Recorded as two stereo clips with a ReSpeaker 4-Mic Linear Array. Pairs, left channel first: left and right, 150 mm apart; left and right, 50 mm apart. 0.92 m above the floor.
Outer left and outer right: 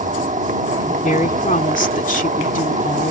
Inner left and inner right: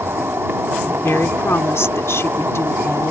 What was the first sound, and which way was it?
An insect, 60° right (ahead or behind).